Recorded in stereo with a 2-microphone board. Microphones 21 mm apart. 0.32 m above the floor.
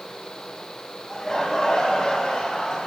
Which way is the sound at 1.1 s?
15° left (ahead or behind).